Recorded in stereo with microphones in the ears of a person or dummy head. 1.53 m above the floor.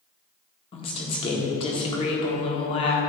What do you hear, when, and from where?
0.7 s a woman speaking: 35° left (ahead or behind), 1.4 m